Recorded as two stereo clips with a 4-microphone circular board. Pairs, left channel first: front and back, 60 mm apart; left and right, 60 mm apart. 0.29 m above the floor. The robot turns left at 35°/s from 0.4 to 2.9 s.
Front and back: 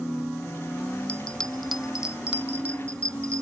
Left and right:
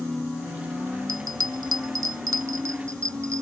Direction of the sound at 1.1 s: 70° right.